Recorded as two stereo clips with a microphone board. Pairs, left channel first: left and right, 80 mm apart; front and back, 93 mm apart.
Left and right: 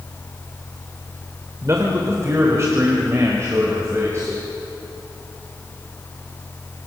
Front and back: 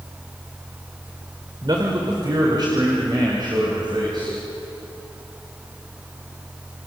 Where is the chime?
I don't hear a chime.